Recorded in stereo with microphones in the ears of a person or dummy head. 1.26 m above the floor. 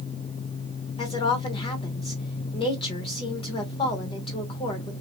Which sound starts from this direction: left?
A woman speaking, at 1.0 s.